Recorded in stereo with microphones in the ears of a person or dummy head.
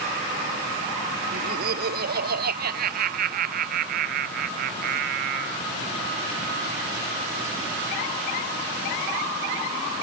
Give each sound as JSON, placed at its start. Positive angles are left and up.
{"t": 1.3, "sound": "laughter", "side_deg": -50}